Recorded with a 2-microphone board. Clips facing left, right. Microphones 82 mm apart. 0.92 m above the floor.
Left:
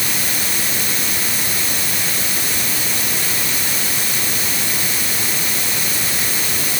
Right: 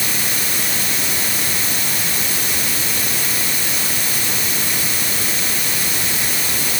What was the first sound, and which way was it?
Only background noise.